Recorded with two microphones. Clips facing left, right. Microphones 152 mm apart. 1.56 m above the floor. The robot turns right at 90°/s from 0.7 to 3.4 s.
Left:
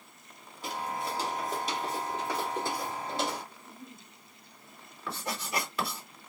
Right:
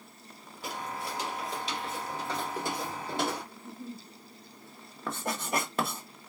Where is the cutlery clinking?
No cutlery clinking in this recording.